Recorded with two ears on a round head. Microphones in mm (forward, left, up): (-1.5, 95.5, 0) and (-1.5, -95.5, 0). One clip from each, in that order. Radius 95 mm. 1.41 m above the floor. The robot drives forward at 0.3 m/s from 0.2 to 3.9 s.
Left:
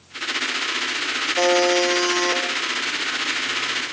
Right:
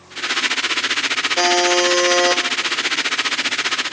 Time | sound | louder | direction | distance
1.4 | a buzzer | right 1 dB | 45° right (ahead or behind) | 2.5 m